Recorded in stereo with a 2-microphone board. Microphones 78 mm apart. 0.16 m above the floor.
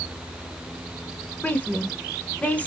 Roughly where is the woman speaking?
Centre.